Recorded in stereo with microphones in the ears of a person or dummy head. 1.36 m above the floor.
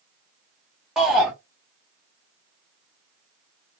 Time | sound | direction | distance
1.0 | a shout | 5° left (ahead or behind) | 0.8 m